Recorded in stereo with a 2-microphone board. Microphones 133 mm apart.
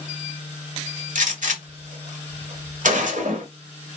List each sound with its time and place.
1.1 s a gunshot: 75° right (ahead or behind), 1.6 m